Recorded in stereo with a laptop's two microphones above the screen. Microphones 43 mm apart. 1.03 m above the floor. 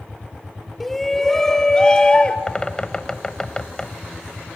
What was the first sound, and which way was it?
A shout, 5° left (ahead or behind).